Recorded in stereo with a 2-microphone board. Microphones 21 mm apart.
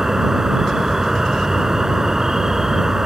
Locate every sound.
0.0 s an insect: 25° right (ahead or behind)